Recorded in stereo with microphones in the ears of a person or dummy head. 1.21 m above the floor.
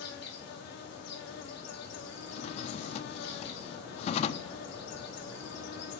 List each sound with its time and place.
0.0 s an insect: 65° left (ahead or behind), 2.5 m
2.3 s a drawer: 40° left (ahead or behind), 1.2 m